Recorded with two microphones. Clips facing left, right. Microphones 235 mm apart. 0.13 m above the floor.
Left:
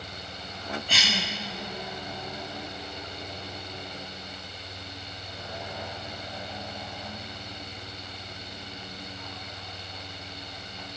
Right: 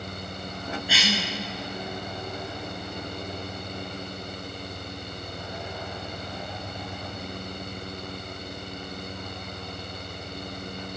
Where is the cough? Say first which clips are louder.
Right 7 dB; 10° right (ahead or behind), 1.7 m.